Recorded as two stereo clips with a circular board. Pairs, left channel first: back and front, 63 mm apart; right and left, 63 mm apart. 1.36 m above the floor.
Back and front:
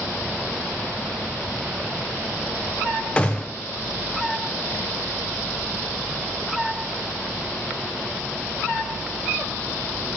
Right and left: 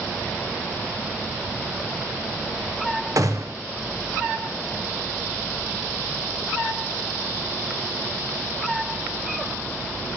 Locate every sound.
3.2 s a gunshot: 110° left, 0.7 m